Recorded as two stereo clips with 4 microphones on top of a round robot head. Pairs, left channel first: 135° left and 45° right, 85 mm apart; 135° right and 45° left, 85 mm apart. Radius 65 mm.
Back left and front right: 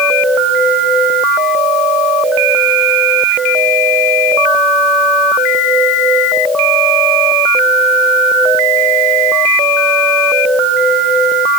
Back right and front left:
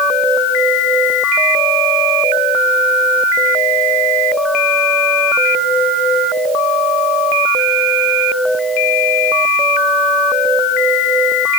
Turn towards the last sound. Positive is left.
No sound to turn to.